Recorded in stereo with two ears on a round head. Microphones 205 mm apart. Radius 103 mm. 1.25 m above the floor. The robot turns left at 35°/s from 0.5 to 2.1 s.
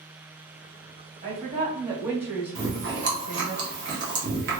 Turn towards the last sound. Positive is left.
turn(degrees=-55)  # may be behind; listen again after turning